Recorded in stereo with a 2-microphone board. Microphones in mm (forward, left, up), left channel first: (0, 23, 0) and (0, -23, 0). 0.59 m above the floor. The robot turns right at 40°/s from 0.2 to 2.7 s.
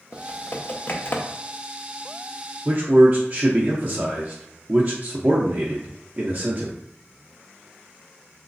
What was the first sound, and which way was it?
Typing on a keyboard, 45° left (ahead or behind).